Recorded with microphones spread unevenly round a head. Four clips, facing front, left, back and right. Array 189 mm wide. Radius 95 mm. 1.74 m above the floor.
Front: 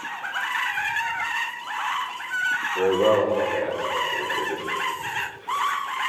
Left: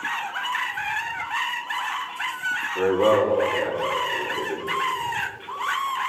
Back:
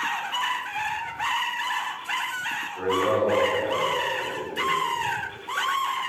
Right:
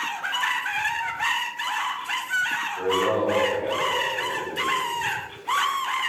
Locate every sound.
2.8 s a man speaking: 55° left, 7.5 m